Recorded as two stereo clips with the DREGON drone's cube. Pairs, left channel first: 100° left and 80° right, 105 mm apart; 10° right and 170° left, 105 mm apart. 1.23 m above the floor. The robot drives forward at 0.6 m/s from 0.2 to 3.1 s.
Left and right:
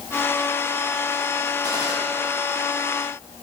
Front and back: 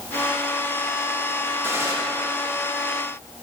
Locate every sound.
1.6 s a gunshot: 125° right, 1.2 m; by 1.9 s 130° right, 1.3 m